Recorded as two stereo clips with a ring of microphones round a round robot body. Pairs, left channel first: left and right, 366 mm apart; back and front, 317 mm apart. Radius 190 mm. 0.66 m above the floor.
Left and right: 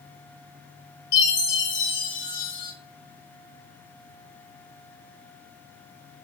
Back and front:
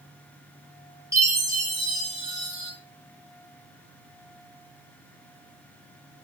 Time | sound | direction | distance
1.1 | a chime | 80° left | 2.5 m